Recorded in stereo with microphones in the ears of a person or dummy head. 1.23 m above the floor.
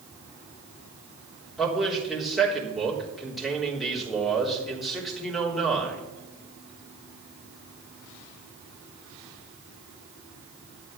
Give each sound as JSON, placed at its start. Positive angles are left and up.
{"t": 1.6, "sound": "a man speaking", "side_deg": 0, "distance_m": 3.5}